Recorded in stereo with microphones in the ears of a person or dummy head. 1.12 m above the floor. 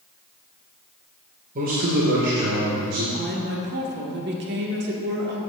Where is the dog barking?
I don't hear a dog barking.